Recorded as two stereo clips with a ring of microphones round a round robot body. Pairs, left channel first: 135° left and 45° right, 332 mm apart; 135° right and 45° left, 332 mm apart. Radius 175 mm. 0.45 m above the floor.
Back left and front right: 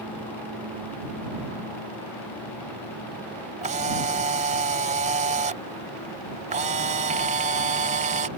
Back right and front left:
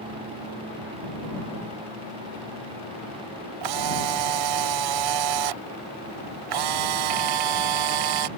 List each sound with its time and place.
3.6 s a camera shutter: 25° left